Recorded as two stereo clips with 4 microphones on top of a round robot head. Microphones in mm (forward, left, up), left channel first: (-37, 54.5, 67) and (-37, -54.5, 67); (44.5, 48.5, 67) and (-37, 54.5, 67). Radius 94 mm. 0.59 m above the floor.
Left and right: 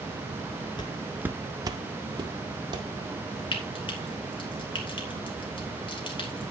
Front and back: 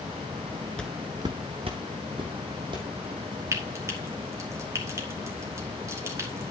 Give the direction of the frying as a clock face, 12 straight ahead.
8 o'clock.